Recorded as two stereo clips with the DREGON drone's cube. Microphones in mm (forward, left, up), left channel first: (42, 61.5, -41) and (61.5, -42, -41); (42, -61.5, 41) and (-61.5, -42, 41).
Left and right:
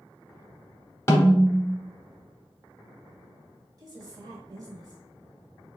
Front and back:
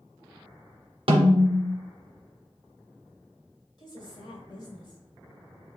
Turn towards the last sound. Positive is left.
turn(degrees=-40)